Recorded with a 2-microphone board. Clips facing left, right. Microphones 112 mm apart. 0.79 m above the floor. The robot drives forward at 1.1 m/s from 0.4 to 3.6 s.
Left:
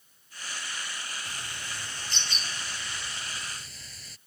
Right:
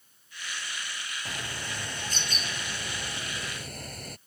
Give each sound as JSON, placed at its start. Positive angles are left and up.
{"t": 1.2, "sound": "a bird", "side_deg": -40}